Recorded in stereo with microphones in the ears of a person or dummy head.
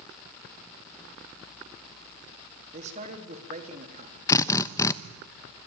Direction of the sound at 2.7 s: 35° right (ahead or behind).